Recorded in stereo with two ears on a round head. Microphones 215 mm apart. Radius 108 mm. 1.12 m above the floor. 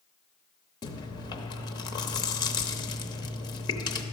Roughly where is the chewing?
Centre.